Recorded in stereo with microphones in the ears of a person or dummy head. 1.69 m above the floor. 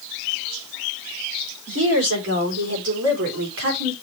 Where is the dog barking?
I don't hear a dog barking.